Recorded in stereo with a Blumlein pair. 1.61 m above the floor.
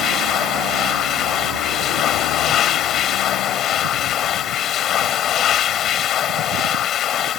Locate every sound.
0.0 s a machine running: 30° left